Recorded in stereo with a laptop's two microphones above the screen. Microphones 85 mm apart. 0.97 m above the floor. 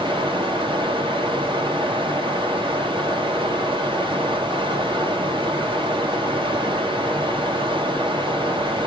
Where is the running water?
80° right, 1.3 m.